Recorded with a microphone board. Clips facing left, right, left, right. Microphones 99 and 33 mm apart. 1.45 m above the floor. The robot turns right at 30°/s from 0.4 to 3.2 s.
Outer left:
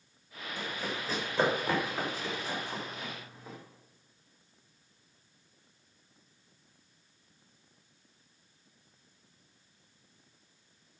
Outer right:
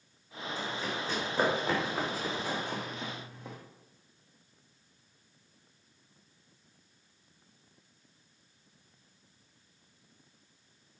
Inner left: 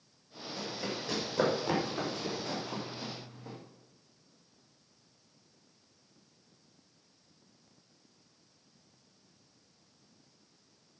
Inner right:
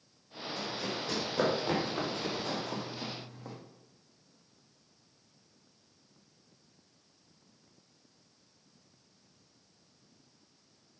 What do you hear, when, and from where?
0.6 s running footsteps: 20° left (ahead or behind), 5.5 m; by 3.6 s 70° right (ahead or behind), 4.5 m